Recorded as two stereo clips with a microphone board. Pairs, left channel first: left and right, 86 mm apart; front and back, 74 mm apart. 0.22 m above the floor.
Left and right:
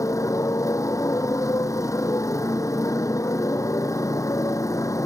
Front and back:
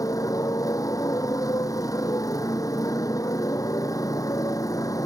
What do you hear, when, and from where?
0.0 s a motorcycle: 40° left